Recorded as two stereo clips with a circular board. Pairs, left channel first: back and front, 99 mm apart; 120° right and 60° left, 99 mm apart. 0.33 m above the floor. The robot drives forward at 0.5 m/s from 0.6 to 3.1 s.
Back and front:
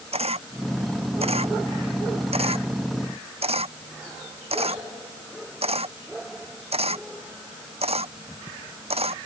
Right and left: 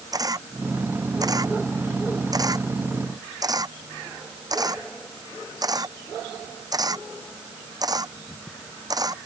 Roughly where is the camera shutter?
Ahead.